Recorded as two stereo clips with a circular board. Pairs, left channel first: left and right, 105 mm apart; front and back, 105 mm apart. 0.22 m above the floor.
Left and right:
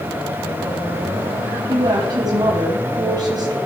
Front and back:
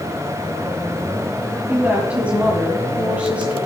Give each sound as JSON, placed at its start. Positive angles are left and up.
{"t": 1.7, "sound": "a woman speaking", "azimuth_deg": -110, "distance_m": 1.4}